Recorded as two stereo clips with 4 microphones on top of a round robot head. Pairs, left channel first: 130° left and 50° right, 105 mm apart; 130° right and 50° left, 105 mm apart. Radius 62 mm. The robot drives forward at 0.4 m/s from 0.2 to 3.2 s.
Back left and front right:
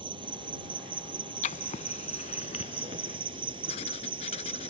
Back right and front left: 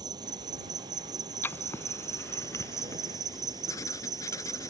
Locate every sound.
0.0 s an insect: 5° right
1.4 s writing: 160° left; by 4.7 s 165° left